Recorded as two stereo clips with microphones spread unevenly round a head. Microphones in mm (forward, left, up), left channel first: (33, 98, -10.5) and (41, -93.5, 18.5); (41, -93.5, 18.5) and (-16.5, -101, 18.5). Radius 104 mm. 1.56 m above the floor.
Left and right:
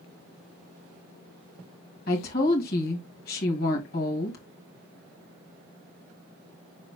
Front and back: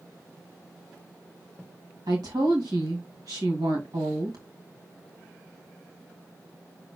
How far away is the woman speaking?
About 2.5 m.